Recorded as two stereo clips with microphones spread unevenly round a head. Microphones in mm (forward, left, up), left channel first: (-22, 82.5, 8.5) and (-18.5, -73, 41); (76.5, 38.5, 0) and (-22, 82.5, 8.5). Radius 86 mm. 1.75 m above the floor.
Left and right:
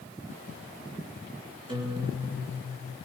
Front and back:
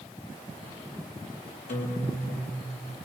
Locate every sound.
1.7 s a guitar: 25° right, 7 m